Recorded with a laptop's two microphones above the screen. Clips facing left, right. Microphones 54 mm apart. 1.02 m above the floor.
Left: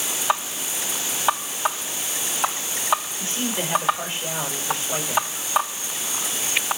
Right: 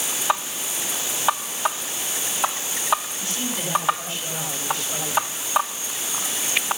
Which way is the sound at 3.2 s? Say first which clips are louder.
Left 2 dB; 30° left (ahead or behind).